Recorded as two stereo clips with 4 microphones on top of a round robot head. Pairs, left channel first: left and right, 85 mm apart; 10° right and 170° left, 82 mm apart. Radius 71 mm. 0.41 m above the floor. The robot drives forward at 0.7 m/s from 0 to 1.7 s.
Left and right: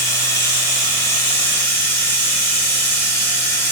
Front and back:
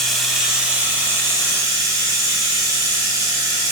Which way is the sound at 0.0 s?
70° left.